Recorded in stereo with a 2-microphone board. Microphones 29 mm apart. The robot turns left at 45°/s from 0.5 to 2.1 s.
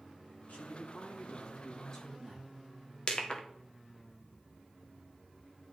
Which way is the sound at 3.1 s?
35° left (ahead or behind).